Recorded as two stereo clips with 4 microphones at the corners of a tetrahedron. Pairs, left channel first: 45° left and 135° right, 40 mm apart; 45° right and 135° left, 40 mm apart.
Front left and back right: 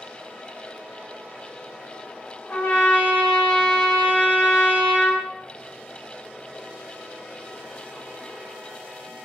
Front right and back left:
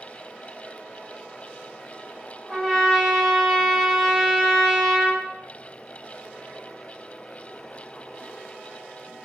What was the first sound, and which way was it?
A trumpet, 55° left.